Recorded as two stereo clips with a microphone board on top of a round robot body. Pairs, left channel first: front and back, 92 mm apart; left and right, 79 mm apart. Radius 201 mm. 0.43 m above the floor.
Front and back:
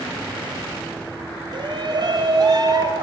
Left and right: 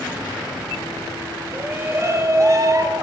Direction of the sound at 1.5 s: 155° right.